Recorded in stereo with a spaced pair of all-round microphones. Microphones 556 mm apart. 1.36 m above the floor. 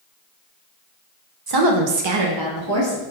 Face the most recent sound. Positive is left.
turn(degrees=-25)  # may be behind; listen again after turning